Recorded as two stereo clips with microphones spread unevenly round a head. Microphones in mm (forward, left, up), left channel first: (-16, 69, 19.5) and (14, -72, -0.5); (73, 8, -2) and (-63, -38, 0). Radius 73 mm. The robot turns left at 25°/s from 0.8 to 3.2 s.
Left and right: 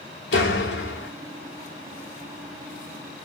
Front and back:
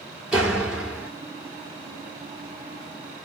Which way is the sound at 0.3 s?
110° left.